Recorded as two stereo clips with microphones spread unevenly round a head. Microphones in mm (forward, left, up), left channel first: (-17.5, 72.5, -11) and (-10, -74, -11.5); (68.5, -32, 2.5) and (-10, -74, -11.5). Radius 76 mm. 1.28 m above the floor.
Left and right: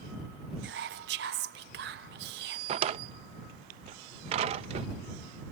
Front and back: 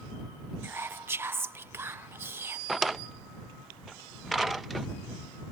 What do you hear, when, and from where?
0.6 s whispering: 90° right
2.7 s a drawer: 55° right